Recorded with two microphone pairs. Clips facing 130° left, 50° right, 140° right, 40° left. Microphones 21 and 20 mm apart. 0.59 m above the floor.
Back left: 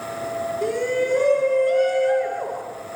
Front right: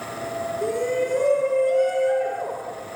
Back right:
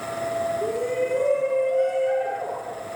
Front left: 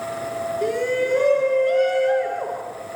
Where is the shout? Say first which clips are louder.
Back left 1 dB, front left 3 dB; 70° left, 7 m.